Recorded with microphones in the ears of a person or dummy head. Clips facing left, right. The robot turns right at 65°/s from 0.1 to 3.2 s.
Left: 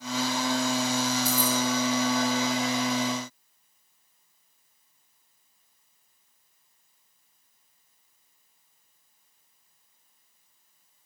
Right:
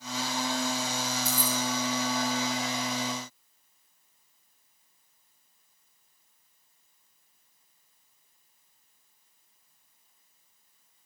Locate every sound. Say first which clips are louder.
1.2 s keys jangling: left 5 dB; centre (ahead or behind), 0.9 m; by 1.6 s 20° left (ahead or behind), 0.9 m